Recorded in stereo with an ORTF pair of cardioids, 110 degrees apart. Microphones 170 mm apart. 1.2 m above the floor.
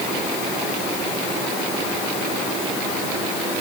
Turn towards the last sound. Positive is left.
No sound to turn to.